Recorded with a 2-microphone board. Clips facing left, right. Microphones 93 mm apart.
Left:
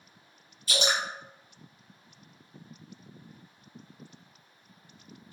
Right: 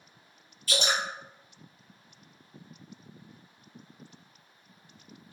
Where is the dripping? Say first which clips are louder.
Even; 25° left (ahead or behind), 1.7 m.